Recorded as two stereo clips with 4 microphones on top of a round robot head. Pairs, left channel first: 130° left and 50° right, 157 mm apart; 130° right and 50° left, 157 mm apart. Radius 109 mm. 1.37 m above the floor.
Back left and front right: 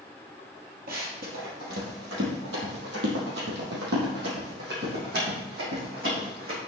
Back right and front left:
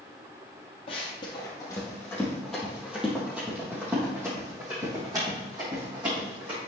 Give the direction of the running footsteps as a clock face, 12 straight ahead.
3 o'clock.